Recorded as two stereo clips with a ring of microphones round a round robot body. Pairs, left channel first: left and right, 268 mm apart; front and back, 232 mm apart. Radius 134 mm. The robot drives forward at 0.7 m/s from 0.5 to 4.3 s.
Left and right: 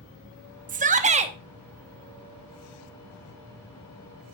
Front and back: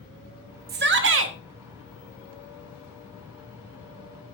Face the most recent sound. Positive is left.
turn(degrees=-170)